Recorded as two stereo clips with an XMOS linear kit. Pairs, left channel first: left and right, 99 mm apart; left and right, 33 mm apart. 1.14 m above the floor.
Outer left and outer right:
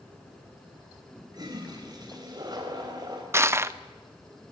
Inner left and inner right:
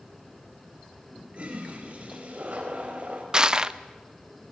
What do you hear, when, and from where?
1.3 s a toilet flushing: 40° right (ahead or behind), 4 m
3.3 s crushing: 25° right (ahead or behind), 0.5 m